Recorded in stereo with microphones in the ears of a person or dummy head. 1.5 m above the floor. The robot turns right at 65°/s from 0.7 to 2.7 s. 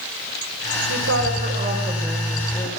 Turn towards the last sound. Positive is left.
turn(degrees=30)